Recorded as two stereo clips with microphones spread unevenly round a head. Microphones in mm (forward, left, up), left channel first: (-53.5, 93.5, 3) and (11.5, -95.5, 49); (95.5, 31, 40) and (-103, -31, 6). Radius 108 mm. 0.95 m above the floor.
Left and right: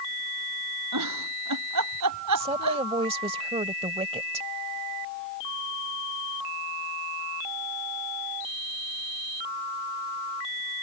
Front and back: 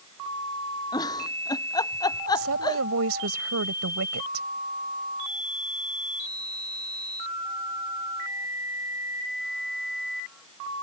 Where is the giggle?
55° right.